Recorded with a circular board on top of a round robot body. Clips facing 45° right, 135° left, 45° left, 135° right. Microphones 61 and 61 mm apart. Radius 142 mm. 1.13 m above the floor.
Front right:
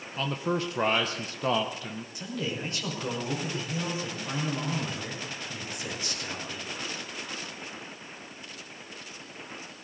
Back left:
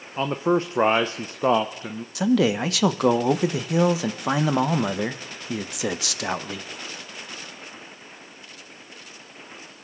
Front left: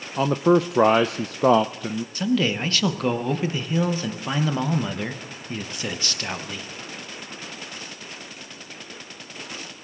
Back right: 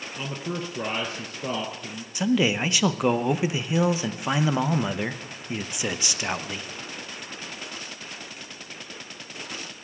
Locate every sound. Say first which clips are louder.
0.2 s a man speaking: back left 8 dB, front left 15 dB; 70° left, 0.5 m
2.1 s a man speaking: back left 15 dB, back right 1 dB; 145° left, 0.9 m